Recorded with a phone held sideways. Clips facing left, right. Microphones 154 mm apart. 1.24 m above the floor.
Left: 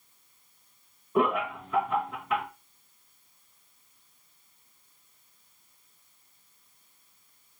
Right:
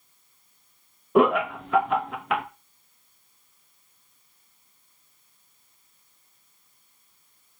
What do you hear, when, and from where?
1.1 s laughter: 80° right, 0.8 m